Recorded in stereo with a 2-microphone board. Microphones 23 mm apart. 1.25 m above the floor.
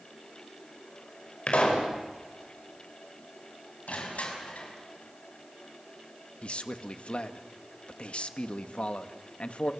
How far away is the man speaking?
About 1.4 m.